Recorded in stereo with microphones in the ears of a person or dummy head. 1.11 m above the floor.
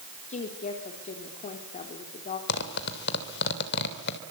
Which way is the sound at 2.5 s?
60° left (ahead or behind).